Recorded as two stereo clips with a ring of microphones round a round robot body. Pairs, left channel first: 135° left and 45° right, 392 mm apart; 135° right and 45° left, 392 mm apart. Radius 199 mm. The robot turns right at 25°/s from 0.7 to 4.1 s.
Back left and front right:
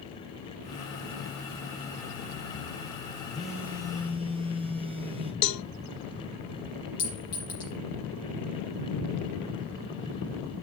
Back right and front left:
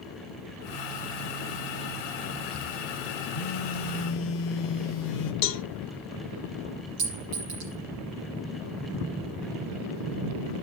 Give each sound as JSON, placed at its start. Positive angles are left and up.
{"t": 3.3, "sound": "a phone buzzing", "azimuth_deg": -140, "distance_m": 1.8}
{"t": 5.4, "sound": "a cowbell", "azimuth_deg": 175, "distance_m": 0.7}
{"t": 7.0, "sound": "a clink", "azimuth_deg": 55, "distance_m": 6.0}